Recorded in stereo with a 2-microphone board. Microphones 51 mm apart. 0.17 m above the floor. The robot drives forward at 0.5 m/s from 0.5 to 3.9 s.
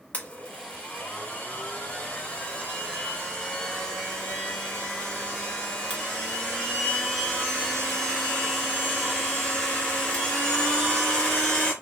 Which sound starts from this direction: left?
A blender, at 0.1 s.